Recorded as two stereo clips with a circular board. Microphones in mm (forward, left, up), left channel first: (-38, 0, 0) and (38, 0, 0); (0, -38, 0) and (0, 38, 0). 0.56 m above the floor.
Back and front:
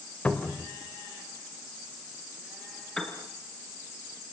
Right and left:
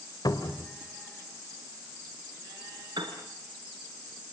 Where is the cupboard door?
110° right, 2.5 m.